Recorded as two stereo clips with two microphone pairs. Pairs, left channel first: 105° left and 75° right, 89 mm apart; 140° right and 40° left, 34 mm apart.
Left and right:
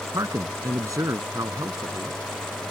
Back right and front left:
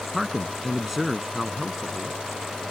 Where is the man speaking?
40° right.